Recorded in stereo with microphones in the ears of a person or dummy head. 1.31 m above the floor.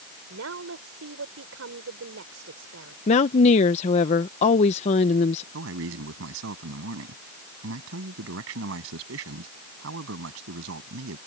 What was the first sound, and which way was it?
A woman speaking, 80° right.